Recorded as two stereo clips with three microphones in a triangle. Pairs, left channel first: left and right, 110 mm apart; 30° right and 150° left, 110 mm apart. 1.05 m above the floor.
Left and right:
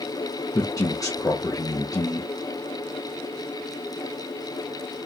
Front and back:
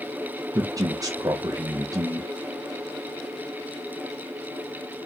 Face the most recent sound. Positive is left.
turn(degrees=120)